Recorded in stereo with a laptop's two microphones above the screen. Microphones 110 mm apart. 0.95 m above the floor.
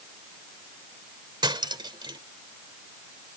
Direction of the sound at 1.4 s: 45° right (ahead or behind).